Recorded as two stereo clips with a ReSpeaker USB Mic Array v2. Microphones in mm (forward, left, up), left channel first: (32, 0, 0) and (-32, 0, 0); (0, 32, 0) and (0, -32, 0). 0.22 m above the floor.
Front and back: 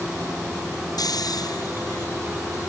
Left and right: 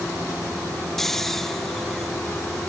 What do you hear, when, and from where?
1.0 s snoring: 5° left